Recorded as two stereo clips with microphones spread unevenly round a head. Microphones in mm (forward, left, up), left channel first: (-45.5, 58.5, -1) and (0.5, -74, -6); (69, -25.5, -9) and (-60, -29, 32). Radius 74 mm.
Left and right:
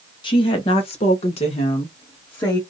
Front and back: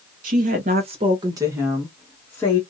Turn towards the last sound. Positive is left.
turn(degrees=55)